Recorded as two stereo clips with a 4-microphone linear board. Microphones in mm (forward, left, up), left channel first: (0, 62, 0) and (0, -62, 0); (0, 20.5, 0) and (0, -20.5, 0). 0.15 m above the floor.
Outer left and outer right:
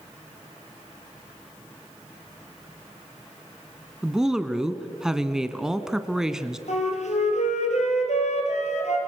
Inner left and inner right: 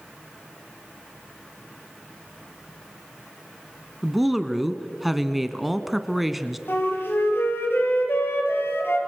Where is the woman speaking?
5° right (ahead or behind), 1.2 m.